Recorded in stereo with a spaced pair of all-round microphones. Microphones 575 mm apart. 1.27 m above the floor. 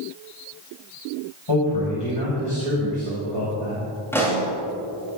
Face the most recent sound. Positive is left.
turn(degrees=5)  # may be behind; listen again after turning